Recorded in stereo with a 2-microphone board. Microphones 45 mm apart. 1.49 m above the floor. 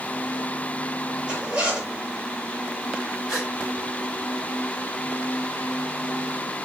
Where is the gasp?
5° left (ahead or behind), 6.5 m.